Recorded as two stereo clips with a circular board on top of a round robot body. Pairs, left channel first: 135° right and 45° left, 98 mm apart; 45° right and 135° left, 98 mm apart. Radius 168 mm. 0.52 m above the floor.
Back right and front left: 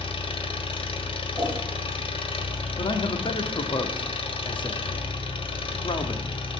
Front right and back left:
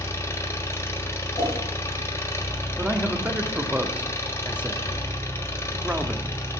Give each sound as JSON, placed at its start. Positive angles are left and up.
{"t": 0.0, "sound": "an engine running", "azimuth_deg": -105, "distance_m": 1.6}
{"t": 1.4, "sound": "a whoosh", "azimuth_deg": -95, "distance_m": 5.5}
{"t": 2.8, "sound": "a man speaking", "azimuth_deg": -150, "distance_m": 1.4}